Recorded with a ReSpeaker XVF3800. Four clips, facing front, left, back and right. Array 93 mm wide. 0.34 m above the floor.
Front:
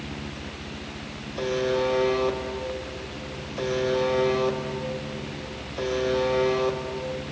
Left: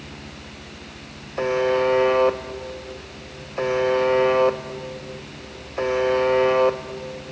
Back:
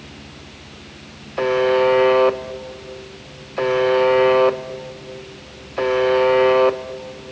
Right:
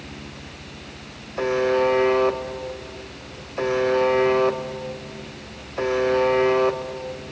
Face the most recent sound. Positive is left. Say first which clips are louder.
# even, back 9 dB
turn(degrees=180)